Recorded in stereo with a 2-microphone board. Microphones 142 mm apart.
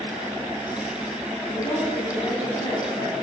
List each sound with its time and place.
1.5 s a woman speaking: 30° left (ahead or behind), 3.5 m